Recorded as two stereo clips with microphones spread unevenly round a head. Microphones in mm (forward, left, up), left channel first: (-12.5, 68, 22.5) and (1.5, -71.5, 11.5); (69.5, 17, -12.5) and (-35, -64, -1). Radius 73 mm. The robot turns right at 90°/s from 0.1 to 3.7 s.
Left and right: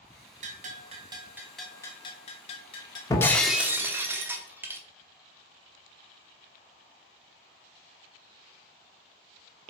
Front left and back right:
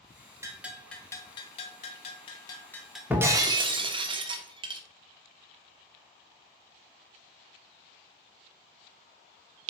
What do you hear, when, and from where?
0.4 s a bell: 90° right, 1.4 m; by 3.0 s 140° left, 1.4 m
3.1 s breaking glass: 150° left, 1.0 m; by 4.8 s 160° right, 1.0 m